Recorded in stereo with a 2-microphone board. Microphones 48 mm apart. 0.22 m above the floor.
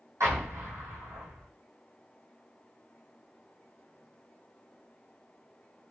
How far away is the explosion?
About 2.5 m.